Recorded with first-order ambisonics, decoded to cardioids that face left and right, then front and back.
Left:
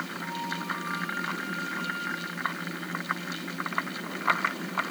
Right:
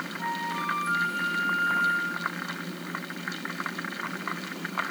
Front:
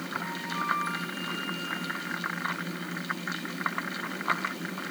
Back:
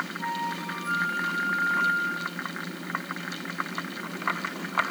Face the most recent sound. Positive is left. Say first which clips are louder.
# right 7 dB, back 2 dB
turn(degrees=-85)